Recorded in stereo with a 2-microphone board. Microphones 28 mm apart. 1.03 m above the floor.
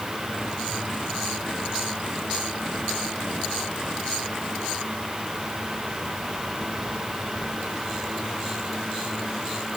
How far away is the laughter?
I don't hear laughter.